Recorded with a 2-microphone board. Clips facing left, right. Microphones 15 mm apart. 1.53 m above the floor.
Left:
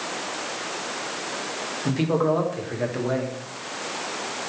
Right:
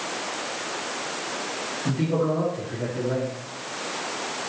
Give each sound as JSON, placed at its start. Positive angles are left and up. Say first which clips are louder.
{"t": 1.9, "sound": "a man speaking", "louder": "left 3 dB", "side_deg": 80, "distance_m": 2.5}